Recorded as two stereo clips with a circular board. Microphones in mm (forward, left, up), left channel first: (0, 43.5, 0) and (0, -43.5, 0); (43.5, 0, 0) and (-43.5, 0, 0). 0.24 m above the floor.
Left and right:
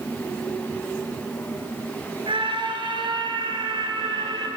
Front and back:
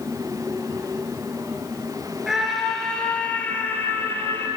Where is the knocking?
I don't hear knocking.